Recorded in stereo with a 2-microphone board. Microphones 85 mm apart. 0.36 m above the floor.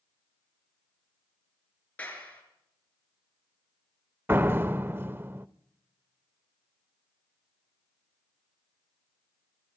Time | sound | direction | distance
2.0 | a clap | 20° left (ahead or behind) | 4.5 m
4.3 | a door slam | 25° right (ahead or behind) | 0.5 m